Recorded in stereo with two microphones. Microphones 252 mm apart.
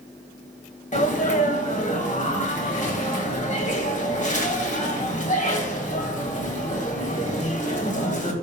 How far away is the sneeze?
About 1.7 m.